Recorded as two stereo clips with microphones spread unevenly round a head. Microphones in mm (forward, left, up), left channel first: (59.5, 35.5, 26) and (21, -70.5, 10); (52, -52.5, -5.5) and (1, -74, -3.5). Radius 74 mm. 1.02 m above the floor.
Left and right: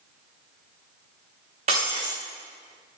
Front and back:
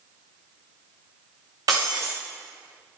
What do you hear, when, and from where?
1.7 s breaking glass: 160° right, 6 m